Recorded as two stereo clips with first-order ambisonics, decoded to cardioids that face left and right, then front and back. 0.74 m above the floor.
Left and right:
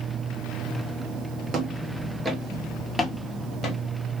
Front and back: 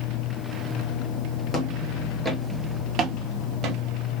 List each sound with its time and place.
1.5 s footsteps: 55° right, 0.8 m; by 3.8 s 145° left, 1.1 m